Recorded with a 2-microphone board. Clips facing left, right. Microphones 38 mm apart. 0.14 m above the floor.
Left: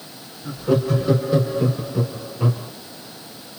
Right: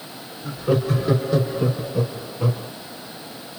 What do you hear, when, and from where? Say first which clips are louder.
0.4 s laughter: left 1 dB; 15° right (ahead or behind), 1.8 m; by 2.7 s 30° left (ahead or behind), 1.8 m